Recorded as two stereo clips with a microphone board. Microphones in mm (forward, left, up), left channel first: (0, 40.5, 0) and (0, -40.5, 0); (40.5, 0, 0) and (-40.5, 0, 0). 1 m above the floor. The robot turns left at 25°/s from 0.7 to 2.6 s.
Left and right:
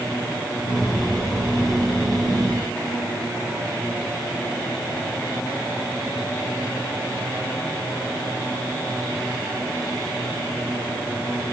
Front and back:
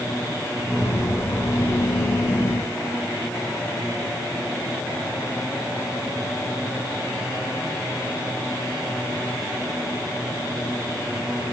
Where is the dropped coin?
No dropped coin in this recording.